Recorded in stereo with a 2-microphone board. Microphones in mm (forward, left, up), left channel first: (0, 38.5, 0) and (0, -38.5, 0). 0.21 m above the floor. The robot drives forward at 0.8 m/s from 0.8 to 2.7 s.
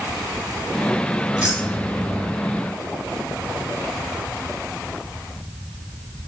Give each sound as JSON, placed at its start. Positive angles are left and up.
{"t": 1.3, "sound": "keys jangling", "side_deg": -15, "distance_m": 2.5}